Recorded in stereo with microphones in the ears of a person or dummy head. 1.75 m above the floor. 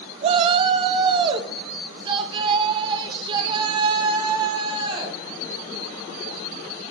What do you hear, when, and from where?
0.2 s a shout: 40° right (ahead or behind), 0.7 m; by 5.2 s 30° right (ahead or behind), 3.5 m